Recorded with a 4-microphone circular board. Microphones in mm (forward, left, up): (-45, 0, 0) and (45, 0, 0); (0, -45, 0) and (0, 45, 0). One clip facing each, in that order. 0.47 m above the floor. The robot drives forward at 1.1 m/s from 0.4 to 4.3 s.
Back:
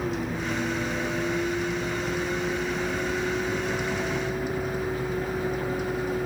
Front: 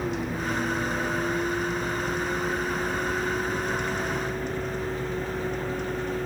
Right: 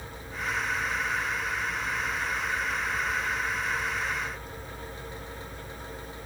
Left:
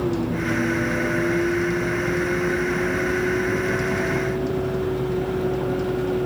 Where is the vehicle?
90° left; by 6.3 s 95° left.